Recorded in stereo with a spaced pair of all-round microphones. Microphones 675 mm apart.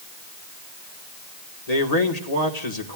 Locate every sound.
1.7 s a man speaking: 65° left (ahead or behind), 2.0 m